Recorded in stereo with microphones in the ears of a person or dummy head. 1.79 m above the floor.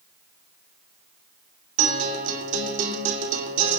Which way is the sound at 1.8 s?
50° right (ahead or behind).